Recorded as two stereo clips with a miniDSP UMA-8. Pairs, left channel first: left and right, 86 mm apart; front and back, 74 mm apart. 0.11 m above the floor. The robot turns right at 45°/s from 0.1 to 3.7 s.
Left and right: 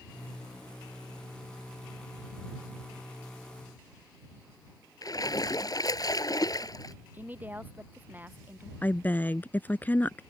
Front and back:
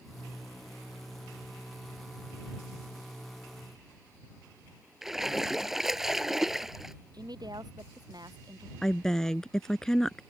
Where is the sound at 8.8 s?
70° left.